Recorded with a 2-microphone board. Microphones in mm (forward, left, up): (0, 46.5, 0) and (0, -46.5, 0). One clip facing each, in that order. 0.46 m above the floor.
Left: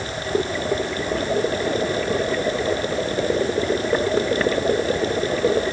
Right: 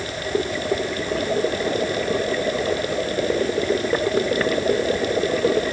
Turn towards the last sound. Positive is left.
No sound to turn to.